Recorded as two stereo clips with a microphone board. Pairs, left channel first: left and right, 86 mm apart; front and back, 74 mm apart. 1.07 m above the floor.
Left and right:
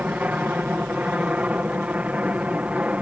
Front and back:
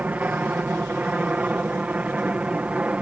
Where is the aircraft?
140° right.